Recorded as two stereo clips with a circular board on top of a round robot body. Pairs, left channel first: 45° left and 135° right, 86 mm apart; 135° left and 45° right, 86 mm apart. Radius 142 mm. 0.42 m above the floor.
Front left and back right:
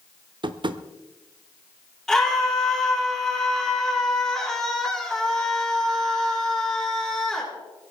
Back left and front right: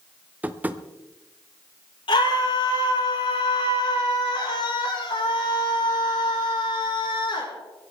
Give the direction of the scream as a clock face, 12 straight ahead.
8 o'clock.